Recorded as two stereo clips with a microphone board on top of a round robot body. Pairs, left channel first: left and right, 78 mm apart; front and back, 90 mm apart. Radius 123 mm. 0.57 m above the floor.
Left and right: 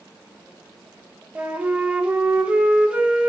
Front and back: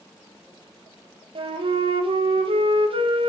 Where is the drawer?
I don't hear a drawer.